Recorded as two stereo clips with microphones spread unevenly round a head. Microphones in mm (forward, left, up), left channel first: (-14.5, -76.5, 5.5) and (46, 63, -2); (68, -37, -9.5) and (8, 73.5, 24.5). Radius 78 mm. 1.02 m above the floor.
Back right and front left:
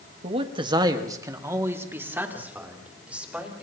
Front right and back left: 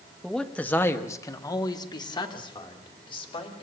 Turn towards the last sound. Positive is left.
turn(degrees=-15)